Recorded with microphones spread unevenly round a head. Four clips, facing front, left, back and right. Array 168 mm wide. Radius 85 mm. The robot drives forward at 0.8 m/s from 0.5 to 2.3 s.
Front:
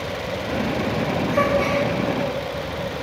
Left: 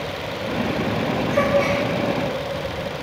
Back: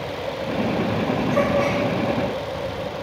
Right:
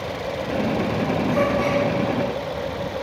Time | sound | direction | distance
1.3 | a gasp | 150° right | 3 m